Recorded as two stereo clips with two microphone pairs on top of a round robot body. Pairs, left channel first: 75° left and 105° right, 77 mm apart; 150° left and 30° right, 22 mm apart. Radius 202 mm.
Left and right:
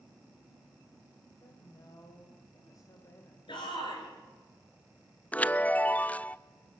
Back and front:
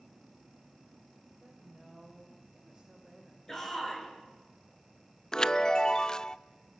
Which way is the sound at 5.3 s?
125° left.